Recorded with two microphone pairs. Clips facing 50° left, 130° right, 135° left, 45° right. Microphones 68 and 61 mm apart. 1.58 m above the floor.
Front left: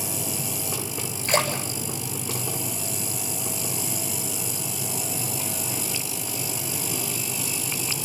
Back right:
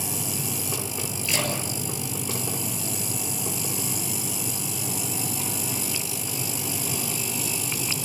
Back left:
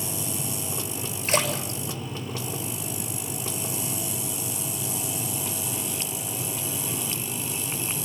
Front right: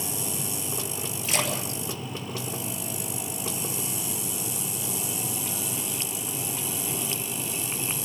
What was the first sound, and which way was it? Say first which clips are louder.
A splash: front left 5 dB, back left 4 dB; 90° left.